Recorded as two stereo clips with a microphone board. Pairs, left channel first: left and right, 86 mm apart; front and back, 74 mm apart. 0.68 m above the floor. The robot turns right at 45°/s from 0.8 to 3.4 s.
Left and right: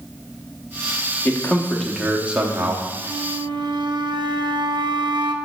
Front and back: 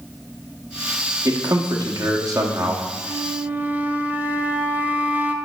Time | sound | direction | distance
1.2 | a man speaking | 150° left | 0.9 m
3.0 | a flute | 130° right | 0.6 m